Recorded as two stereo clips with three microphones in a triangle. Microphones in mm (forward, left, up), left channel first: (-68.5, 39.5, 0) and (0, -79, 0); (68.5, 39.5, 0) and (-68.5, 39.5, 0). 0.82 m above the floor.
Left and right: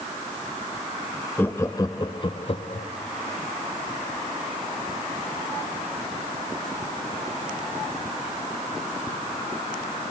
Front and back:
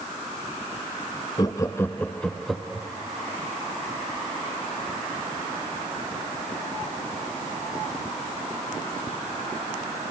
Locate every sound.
1.4 s laughter: 50° left, 1.0 m; by 2.9 s 95° left, 1.3 m